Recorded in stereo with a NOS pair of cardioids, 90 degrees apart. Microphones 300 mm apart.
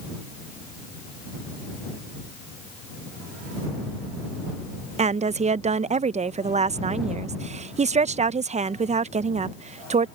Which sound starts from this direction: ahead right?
A woman speaking, at 5.0 s.